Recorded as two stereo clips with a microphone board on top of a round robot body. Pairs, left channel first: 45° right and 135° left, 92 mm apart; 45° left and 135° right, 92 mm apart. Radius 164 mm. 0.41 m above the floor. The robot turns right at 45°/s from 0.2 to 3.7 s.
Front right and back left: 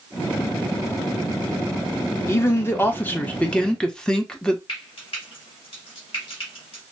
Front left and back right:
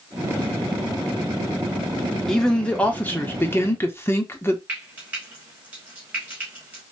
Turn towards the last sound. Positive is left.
turn(degrees=-65)